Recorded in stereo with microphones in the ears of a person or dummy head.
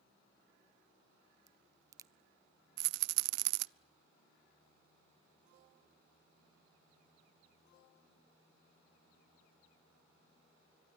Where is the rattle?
65° right (ahead or behind), 0.5 m.